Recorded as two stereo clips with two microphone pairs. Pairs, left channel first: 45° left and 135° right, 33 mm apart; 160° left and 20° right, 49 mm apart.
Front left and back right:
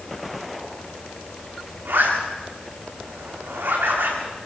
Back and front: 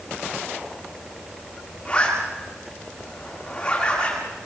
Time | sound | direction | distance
1.9 | a zipper | 135° right | 9.5 m